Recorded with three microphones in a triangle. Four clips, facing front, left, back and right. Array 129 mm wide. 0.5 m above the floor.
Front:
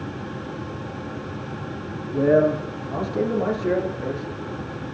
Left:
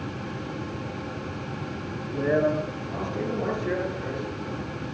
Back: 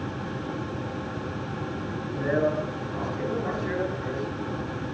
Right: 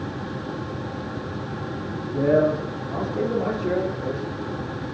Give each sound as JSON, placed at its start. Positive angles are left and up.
{"t": 2.1, "sound": "a man speaking", "azimuth_deg": -25, "distance_m": 9.0}